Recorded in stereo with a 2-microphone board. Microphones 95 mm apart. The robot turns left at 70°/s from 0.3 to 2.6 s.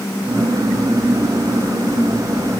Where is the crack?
I don't hear a crack.